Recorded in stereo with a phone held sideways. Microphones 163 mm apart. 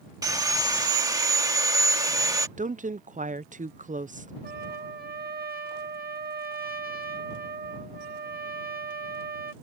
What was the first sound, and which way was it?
Sawing, 25° right (ahead or behind).